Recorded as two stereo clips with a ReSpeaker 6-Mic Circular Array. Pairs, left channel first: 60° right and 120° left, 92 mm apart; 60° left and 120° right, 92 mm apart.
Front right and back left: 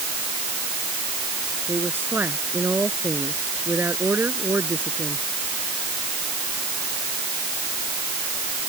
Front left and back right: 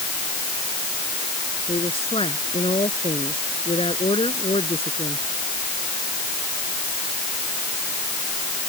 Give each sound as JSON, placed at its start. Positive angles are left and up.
{"t": 1.7, "sound": "a woman speaking", "azimuth_deg": 50}